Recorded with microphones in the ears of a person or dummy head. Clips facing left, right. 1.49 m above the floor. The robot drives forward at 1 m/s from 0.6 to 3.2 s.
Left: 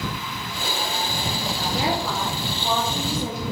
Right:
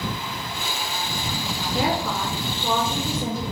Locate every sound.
1.7 s a woman speaking: 85° right, 2.5 m; by 3.4 s 55° right (ahead or behind), 2.5 m